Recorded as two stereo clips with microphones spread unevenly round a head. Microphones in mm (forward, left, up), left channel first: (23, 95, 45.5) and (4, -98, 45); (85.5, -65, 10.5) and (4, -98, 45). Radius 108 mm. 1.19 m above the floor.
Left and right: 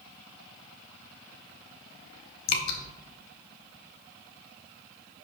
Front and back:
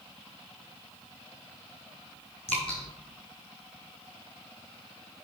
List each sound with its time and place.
2.5 s dripping: 120° left, 1.0 m